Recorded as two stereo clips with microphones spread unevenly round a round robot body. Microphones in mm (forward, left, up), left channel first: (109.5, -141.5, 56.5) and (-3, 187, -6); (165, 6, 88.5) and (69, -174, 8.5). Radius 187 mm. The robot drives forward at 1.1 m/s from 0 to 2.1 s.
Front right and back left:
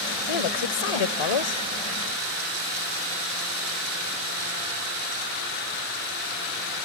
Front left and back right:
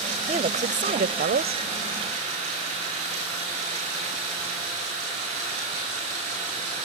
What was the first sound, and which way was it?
A woman speaking, 65° right.